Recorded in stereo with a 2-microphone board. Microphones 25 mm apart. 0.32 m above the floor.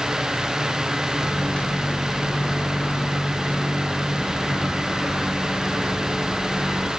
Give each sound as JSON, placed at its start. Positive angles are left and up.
{"t": 1.2, "sound": "a microwave", "side_deg": 70, "distance_m": 4.5}